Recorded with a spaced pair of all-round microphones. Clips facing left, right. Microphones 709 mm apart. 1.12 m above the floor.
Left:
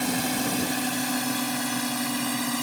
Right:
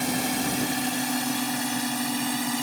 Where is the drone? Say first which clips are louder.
Even; centre (ahead or behind); by 2.6 s 5° left (ahead or behind).